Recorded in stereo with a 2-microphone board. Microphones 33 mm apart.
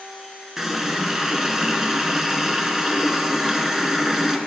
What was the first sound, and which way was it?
A running tap, 15° right (ahead or behind).